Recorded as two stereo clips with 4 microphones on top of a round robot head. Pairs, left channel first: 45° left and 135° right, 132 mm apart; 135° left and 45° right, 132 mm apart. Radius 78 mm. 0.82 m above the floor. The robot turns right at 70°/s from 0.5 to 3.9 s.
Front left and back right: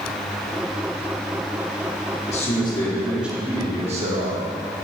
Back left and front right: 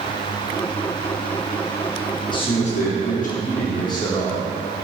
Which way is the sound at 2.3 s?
75° left.